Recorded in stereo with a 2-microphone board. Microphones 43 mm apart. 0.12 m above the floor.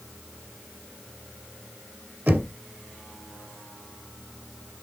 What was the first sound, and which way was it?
Knocking, 40° right (ahead or behind).